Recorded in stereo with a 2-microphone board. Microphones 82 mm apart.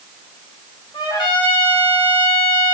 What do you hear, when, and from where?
0.9 s a trumpet: 65° left (ahead or behind), 2 m